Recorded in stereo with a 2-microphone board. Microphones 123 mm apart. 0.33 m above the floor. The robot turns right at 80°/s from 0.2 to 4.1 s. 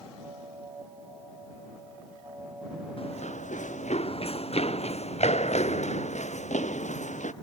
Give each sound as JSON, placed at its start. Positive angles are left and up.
{"t": 3.0, "sound": "running footsteps", "side_deg": 45}